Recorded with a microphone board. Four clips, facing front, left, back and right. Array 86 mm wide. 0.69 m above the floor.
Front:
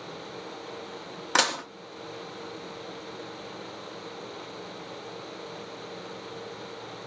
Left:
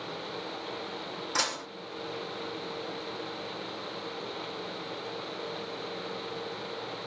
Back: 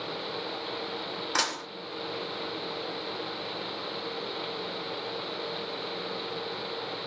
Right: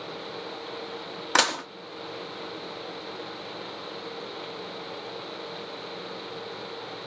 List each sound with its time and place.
1.4 s dishes clattering: 65° right, 0.6 m